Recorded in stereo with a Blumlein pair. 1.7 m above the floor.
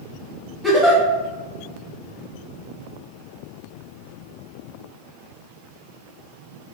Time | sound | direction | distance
0.6 | a giggle | 5° right | 1.6 m